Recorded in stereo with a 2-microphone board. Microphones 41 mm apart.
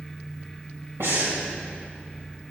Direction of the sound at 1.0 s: 75° right (ahead or behind).